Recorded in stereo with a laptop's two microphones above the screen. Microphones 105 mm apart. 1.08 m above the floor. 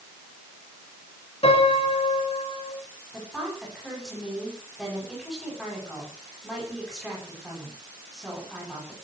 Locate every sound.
1.4 s a piano: 65° left (ahead or behind), 5.5 m
3.1 s a woman speaking: centre (ahead or behind), 9 m